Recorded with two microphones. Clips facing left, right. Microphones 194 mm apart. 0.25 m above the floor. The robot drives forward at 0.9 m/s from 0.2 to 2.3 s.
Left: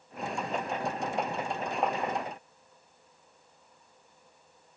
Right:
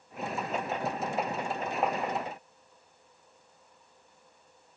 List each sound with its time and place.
Only background noise.